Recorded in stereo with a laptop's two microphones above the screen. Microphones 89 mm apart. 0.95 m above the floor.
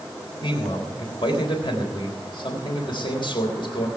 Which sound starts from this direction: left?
A man speaking, at 0.4 s.